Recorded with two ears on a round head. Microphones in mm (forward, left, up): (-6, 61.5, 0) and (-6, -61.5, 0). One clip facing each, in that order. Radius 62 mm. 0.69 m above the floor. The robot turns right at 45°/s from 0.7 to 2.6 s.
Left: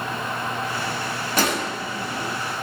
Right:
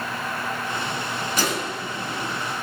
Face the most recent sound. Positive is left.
turn(degrees=100)